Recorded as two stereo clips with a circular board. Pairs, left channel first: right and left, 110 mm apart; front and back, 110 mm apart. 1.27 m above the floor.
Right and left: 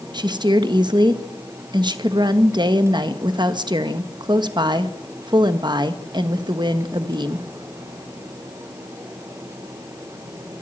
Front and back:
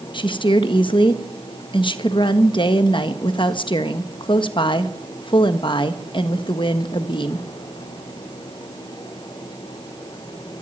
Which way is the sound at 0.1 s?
45° left.